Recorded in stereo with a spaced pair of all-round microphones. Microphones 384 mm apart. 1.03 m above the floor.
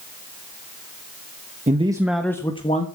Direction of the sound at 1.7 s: 20° right (ahead or behind).